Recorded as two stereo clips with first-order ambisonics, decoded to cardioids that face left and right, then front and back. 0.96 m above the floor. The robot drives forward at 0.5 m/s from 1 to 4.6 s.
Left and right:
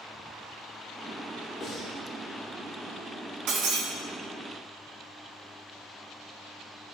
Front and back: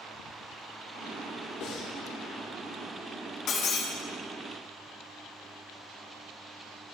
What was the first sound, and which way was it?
Breathing, 30° left.